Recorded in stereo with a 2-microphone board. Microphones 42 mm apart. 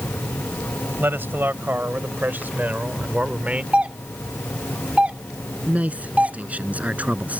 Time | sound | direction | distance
1.0 | a man speaking | 65° right (ahead or behind) | ?
3.7 | a doorbell | 35° right (ahead or behind) | ?
5.7 | a man speaking | 40° right (ahead or behind) | ?